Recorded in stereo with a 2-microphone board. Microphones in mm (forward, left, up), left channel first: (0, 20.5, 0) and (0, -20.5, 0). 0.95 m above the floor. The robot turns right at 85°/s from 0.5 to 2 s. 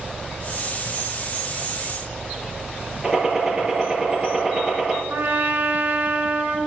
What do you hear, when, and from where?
3.0 s a gunshot: 15° right (ahead or behind), 4.5 m
5.1 s a trumpet: 55° right (ahead or behind), 2.5 m